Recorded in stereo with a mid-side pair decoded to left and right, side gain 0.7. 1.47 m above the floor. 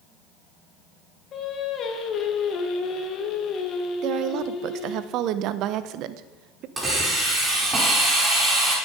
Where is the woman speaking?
55° right, 0.8 m.